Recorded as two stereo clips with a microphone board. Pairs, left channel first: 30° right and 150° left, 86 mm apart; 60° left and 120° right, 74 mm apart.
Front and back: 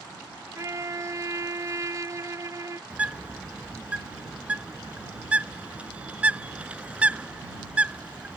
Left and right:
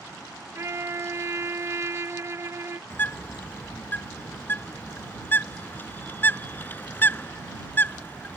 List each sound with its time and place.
0.6 s a trumpet: 165° right
2.9 s a bird: 90° left